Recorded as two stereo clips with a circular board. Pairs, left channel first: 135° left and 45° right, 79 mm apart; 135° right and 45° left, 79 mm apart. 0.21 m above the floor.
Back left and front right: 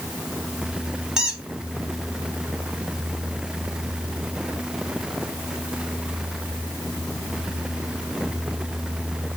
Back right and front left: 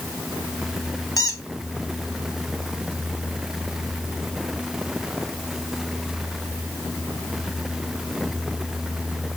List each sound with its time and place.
1.2 s a squeak: 125° right, 0.6 m